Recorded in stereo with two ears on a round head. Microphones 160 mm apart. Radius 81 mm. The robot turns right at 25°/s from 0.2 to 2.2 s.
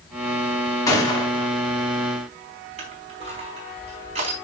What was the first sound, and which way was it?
A gunshot, 20° left (ahead or behind).